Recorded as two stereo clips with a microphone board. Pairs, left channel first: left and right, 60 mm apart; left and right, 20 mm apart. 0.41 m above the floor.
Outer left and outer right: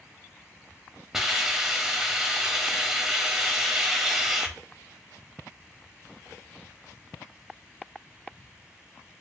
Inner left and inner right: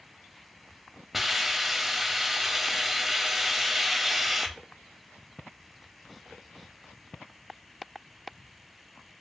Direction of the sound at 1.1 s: 10° right (ahead or behind).